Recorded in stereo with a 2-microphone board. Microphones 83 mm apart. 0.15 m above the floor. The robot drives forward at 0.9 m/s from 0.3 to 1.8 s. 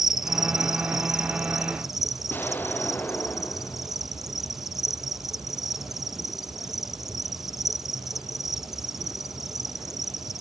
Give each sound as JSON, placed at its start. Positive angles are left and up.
{"t": 0.0, "sound": "an insect", "side_deg": -5}
{"t": 2.3, "sound": "an explosion", "side_deg": 25}